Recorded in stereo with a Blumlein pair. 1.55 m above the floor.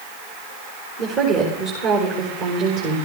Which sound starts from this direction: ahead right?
A woman speaking, at 1.0 s.